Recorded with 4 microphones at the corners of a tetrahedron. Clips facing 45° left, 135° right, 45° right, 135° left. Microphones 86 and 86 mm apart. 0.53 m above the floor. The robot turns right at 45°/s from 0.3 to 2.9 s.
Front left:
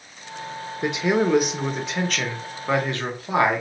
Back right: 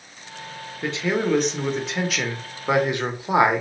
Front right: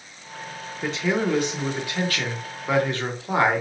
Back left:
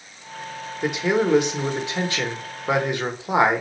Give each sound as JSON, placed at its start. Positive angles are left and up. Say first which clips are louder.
{"t": 0.8, "sound": "a man speaking", "louder": "front left 2 dB, back left 3 dB", "azimuth_deg": 85, "distance_m": 0.8}